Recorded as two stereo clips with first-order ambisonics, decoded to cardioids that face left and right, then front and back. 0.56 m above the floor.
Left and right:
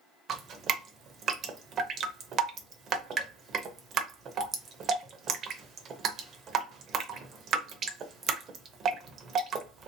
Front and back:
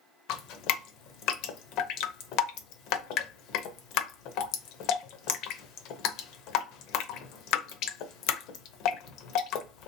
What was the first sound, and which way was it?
Dripping, 35° right.